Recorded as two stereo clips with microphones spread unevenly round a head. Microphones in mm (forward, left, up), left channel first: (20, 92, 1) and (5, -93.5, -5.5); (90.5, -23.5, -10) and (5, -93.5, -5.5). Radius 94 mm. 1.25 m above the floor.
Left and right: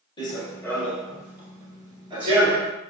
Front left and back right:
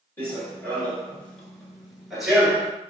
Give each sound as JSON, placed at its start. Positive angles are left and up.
{"t": 0.2, "sound": "running footsteps", "azimuth_deg": 90, "distance_m": 1.3}